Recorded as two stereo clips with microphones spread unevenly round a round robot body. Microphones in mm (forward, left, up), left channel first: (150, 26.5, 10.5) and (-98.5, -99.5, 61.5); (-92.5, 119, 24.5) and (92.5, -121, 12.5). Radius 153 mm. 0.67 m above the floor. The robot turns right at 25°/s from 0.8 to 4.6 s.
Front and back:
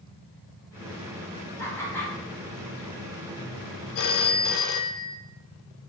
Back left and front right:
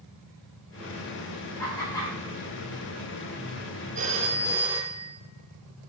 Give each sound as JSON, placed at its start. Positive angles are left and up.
{"t": 1.6, "sound": "laughter", "azimuth_deg": 50, "distance_m": 1.2}
{"t": 4.0, "sound": "a phone ringing", "azimuth_deg": 15, "distance_m": 0.5}